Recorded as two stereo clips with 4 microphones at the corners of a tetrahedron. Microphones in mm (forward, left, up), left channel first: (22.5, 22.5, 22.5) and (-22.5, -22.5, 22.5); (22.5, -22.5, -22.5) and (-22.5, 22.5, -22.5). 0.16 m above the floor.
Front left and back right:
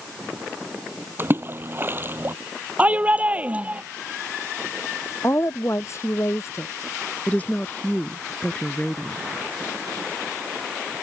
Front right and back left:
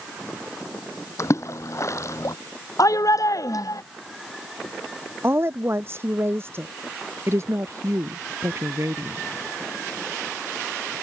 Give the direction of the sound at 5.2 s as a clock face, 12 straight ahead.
9 o'clock.